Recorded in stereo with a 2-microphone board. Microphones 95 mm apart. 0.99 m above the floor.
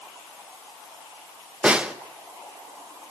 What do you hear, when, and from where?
1.6 s a snare drum: 10° right (ahead or behind), 0.8 m